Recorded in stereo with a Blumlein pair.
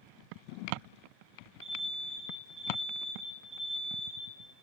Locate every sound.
1.6 s an alarm: 20° right, 8 m